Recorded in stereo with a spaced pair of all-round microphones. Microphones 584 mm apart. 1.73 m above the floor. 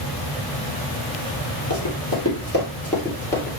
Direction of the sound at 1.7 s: 30° left (ahead or behind).